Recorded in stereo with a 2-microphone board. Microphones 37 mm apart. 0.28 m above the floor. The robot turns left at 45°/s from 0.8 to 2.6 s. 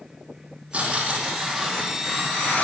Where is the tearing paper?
140° right, 6 m; by 2.6 s 140° left, 6 m.